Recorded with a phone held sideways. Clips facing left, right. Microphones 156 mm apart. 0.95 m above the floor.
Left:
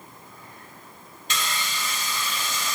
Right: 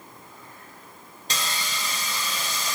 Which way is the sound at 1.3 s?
35° right (ahead or behind).